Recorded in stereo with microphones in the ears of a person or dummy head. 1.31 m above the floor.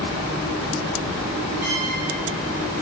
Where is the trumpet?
10° right (ahead or behind), 6 m.